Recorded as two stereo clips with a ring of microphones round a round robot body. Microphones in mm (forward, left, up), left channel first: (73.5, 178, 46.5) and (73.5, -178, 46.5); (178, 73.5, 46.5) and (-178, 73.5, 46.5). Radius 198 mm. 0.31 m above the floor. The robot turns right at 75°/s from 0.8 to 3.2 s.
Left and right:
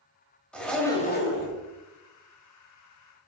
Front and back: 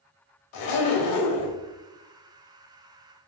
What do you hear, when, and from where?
0.5 s a zipper: 5° left, 1.0 m; by 1.6 s 60° left, 1.0 m